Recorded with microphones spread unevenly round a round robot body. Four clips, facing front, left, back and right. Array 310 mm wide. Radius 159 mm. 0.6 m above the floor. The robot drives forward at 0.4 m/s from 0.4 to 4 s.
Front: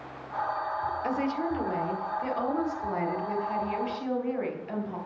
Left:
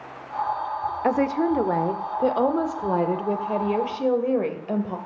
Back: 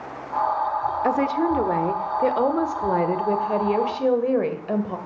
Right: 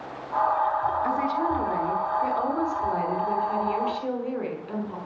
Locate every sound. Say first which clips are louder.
1.0 s a woman speaking: left 3 dB, back 9 dB; 125° left, 1.6 m; by 5.0 s 150° left, 2.5 m